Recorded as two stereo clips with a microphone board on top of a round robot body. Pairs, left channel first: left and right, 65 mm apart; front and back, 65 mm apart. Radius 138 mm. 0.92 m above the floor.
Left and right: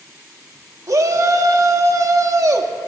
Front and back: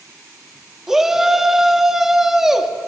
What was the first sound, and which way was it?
A shout, 100° right.